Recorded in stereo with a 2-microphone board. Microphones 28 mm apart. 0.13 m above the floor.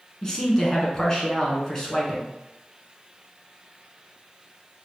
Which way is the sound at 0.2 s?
25° left (ahead or behind).